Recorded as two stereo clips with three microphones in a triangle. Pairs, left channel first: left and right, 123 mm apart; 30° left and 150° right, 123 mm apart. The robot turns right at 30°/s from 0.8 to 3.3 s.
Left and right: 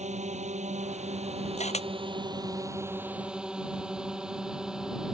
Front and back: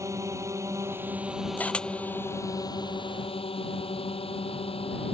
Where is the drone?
85° right; by 5.1 s 5° right.